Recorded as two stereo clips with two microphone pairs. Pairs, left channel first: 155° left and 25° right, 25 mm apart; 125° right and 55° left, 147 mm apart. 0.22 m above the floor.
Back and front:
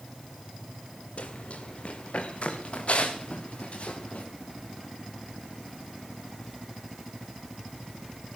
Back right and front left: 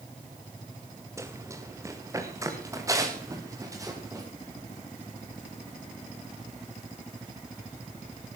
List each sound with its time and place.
1.2 s running footsteps: 125° left, 2.5 m; by 4.3 s 120° left, 5 m